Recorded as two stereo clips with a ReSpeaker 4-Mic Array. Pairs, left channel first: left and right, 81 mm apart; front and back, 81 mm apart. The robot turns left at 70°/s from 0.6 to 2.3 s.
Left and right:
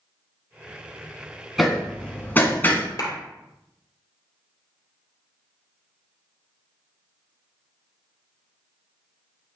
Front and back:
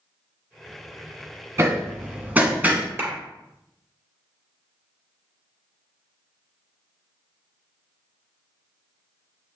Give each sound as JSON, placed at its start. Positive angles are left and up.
{"t": 1.6, "sound": "hammering", "azimuth_deg": 180, "distance_m": 1.3}
{"t": 3.0, "sound": "a clap", "azimuth_deg": 120, "distance_m": 3.0}